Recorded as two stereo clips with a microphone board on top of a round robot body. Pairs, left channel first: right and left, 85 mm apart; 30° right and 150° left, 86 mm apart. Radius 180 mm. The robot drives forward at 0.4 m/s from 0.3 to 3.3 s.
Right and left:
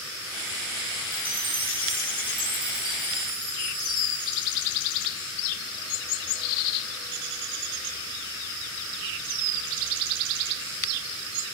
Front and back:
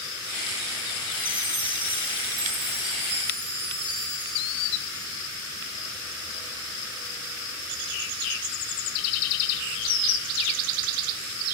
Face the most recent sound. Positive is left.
turn(degrees=125)